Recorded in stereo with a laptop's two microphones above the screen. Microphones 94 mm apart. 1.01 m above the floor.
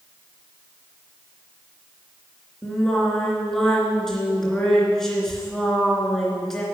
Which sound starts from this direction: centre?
Singing, at 2.6 s.